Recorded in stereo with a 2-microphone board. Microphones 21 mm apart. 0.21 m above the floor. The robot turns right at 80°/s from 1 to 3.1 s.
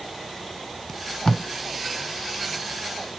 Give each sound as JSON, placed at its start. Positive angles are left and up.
{"t": 0.9, "sound": "tape being pulled", "side_deg": 25, "distance_m": 0.7}